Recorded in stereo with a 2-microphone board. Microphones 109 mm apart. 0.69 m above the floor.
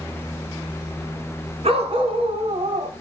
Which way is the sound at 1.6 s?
85° right.